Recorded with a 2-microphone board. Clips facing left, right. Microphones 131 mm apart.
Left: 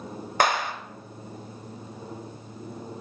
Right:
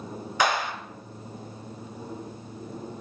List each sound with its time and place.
0.4 s a clap: 55° left (ahead or behind), 1.5 m